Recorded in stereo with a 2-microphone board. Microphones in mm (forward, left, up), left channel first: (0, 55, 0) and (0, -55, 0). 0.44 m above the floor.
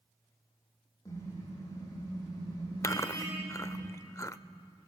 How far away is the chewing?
About 0.5 m.